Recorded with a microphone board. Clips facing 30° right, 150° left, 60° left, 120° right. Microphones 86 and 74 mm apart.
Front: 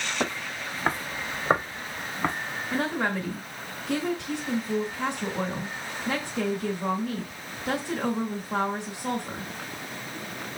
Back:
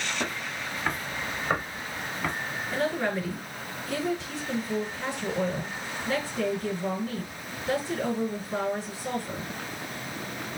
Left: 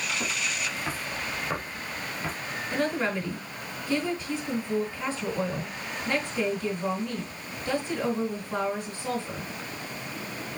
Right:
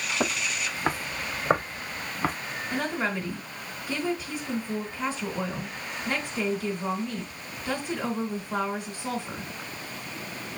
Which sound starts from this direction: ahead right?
A woman speaking, at 2.7 s.